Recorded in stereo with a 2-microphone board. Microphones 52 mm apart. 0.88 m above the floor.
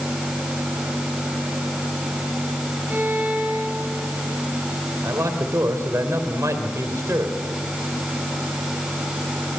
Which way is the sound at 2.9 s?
30° right (ahead or behind).